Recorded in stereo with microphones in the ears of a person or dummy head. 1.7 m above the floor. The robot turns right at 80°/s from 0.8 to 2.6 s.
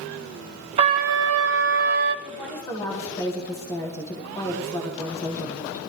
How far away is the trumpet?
About 0.6 m.